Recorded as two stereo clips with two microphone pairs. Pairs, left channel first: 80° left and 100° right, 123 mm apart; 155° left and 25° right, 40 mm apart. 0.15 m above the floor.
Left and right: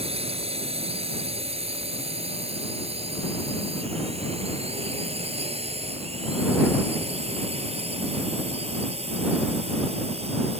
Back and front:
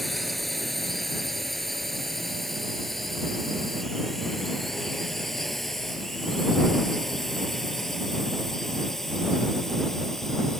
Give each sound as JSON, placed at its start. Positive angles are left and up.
{"t": 0.0, "sound": "a drone", "azimuth_deg": -120}